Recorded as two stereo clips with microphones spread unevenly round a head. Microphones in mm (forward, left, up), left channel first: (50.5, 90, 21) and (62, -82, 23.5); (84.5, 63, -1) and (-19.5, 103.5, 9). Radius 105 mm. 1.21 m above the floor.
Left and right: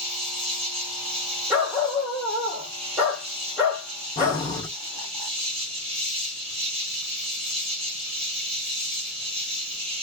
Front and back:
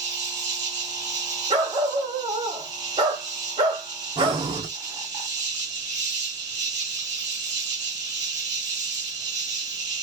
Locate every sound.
0.0 s an insect: 135° right, 1.7 m
1.5 s a dog barking: 165° right, 1.1 m
4.2 s breathing: 165° left, 1.1 m